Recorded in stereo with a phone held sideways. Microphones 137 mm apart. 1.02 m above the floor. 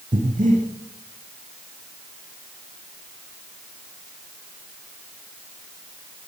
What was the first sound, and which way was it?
Breathing, 75° right (ahead or behind).